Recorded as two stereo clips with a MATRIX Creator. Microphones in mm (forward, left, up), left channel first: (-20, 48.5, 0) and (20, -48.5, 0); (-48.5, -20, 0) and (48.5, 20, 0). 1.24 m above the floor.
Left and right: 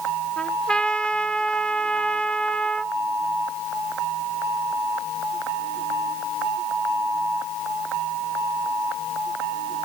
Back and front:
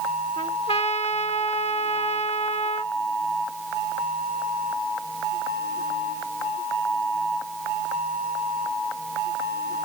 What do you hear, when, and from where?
0.4 s a trumpet: 165° right